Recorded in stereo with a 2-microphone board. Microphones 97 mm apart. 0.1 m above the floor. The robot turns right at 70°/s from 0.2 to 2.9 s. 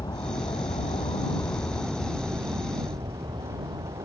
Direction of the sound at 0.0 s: 50° left.